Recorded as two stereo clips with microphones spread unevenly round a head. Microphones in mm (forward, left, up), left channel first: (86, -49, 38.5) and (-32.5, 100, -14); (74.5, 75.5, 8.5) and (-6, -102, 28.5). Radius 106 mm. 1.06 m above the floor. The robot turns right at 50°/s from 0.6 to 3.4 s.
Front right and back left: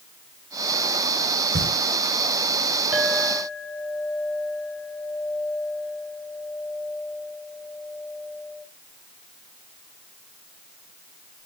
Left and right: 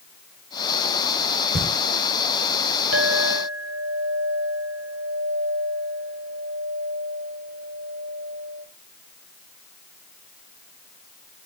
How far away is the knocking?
About 4.5 m.